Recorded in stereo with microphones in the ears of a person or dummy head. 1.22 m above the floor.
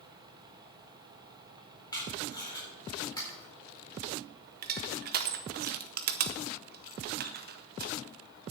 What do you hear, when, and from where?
0.0 s a fan: 20° right (ahead or behind), 1.7 m
1.9 s tape being pulled: 25° left (ahead or behind), 4.5 m
4.6 s crushing: 45° right (ahead or behind), 0.7 m